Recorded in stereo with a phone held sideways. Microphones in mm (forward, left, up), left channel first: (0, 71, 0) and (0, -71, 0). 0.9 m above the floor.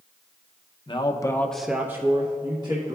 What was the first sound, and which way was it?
A man speaking, 35° left (ahead or behind).